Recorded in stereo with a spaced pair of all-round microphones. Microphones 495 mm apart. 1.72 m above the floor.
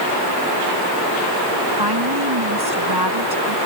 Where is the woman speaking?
50° right (ahead or behind).